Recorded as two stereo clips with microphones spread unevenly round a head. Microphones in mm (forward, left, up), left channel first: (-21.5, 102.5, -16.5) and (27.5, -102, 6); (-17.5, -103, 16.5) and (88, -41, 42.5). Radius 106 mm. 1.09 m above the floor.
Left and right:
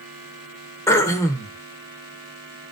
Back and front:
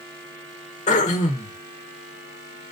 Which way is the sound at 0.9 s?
Straight behind.